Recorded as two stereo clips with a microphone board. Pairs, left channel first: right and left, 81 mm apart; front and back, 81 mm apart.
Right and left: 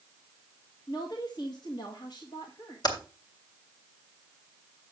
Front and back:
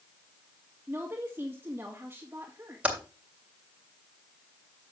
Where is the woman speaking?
115° right, 1.9 m.